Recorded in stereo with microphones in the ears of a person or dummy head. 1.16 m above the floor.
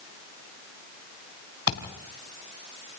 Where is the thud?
55° left (ahead or behind), 3 m.